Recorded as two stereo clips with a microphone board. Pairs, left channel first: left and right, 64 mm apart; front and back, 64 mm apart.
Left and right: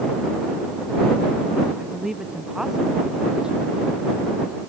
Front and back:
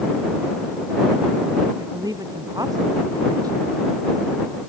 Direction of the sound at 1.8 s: 175° right.